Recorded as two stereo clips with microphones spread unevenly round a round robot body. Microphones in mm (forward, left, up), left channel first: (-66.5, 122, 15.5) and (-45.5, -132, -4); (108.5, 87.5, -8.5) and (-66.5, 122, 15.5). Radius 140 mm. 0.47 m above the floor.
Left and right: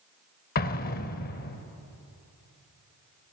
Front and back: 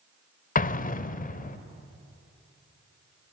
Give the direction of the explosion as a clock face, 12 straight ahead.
11 o'clock.